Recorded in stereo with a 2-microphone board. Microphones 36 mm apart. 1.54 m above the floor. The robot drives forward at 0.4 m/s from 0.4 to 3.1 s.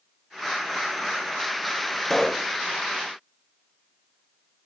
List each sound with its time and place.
2.0 s a pop: 15° left (ahead or behind), 0.8 m; by 2.5 s 20° left (ahead or behind), 0.6 m